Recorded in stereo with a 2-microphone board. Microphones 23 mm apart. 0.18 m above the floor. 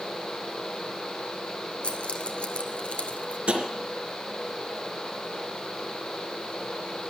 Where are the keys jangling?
60° left (ahead or behind), 2 m.